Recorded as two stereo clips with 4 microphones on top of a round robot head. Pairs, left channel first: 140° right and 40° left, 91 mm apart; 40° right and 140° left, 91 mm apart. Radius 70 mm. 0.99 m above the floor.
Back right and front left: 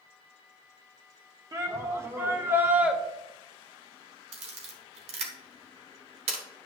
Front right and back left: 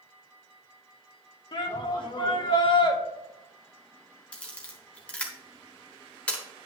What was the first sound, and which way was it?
A shout, 10° right.